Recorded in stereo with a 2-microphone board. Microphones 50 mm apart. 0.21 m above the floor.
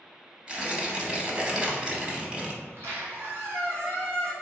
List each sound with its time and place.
0.5 s tearing paper: 20° right (ahead or behind), 0.6 m
2.6 s a squeak: 55° right (ahead or behind), 1.3 m